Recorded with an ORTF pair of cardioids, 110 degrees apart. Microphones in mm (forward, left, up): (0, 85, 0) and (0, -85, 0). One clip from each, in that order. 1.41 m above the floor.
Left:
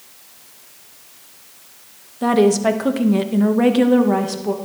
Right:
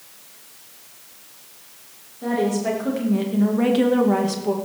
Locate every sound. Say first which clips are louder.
2.2 s a woman speaking: left 8 dB; 65° left, 1.6 m; by 4.6 s 5° right, 1.6 m